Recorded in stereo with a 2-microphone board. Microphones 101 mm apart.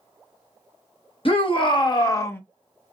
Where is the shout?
60° left (ahead or behind), 1.1 m; by 2.4 s 20° left (ahead or behind), 0.6 m.